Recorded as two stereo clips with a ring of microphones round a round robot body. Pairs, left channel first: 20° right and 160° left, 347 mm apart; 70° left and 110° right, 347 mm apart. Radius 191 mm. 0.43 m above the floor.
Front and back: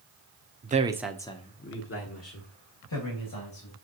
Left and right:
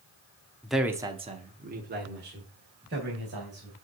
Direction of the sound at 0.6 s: 150° left.